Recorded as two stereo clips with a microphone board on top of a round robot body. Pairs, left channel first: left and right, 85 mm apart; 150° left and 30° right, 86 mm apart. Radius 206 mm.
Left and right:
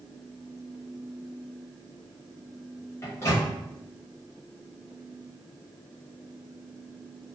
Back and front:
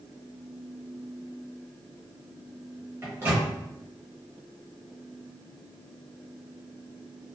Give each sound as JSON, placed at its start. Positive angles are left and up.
{"t": 3.0, "sound": "a microwave", "azimuth_deg": 30, "distance_m": 1.0}